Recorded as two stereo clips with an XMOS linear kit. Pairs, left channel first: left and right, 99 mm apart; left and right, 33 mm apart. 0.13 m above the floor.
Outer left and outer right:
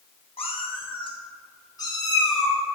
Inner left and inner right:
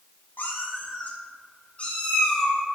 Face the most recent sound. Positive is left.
turn(degrees=25)  # may be behind; listen again after turning